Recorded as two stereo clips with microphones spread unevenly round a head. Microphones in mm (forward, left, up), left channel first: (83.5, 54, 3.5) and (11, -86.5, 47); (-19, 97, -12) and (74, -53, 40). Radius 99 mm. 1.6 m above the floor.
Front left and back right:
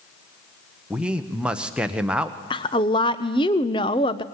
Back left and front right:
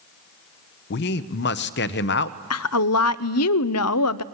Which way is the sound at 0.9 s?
155° left.